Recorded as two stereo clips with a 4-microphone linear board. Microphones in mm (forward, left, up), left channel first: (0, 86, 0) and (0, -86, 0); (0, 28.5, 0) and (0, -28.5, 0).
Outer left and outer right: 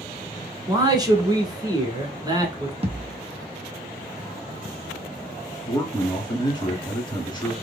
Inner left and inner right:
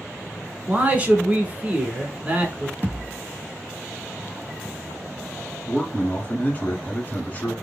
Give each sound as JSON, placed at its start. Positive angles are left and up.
{"t": 0.7, "sound": "a man speaking", "side_deg": -25, "distance_m": 1.1}
{"t": 2.8, "sound": "a thud", "side_deg": -35, "distance_m": 0.7}
{"t": 5.7, "sound": "a man speaking", "side_deg": 25, "distance_m": 1.3}